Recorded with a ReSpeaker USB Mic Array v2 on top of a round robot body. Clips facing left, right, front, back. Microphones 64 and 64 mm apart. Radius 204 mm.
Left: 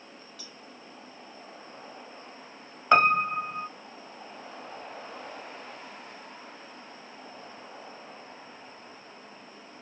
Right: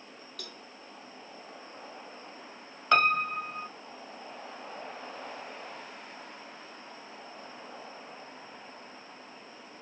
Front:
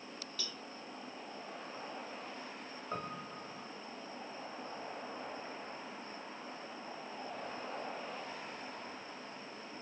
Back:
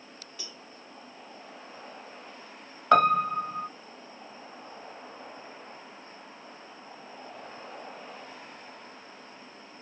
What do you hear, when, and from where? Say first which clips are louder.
0.4 s a cowbell: right 2 dB, back 1 dB; 110° right
2.9 s a piano: left 4 dB, back 23 dB; 165° left